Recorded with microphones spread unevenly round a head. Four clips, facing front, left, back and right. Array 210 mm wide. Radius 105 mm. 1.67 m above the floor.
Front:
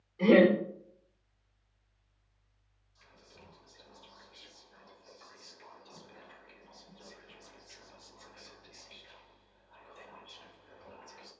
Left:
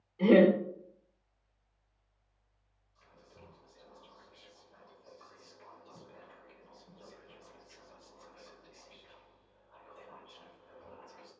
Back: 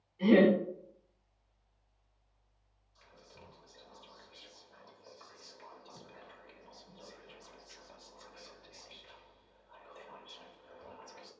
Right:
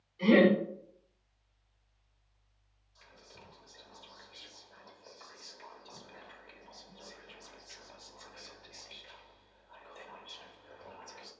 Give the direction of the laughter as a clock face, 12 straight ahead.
11 o'clock.